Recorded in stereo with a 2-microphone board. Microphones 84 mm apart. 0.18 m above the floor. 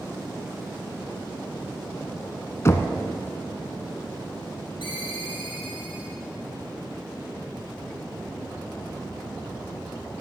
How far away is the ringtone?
About 3 m.